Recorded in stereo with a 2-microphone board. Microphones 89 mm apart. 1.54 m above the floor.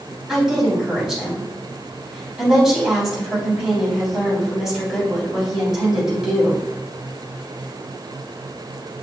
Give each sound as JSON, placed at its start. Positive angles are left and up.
{"t": 0.3, "sound": "a woman speaking", "side_deg": 0, "distance_m": 3.5}